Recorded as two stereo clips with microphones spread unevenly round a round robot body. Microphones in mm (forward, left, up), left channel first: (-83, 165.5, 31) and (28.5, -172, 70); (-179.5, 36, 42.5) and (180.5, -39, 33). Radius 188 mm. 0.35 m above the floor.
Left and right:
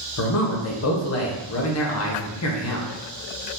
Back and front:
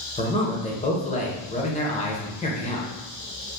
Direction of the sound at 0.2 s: 100° left.